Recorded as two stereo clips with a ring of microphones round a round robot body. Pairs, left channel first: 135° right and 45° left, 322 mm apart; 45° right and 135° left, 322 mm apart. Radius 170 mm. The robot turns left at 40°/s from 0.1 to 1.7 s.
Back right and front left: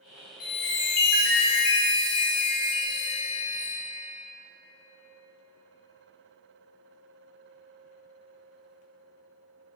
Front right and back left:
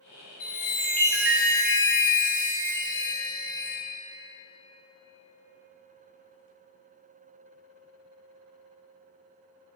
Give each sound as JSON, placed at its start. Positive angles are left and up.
{"t": 0.4, "sound": "a chime", "azimuth_deg": -110, "distance_m": 2.0}